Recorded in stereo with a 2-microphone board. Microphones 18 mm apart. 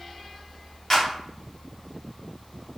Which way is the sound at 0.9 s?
30° left (ahead or behind).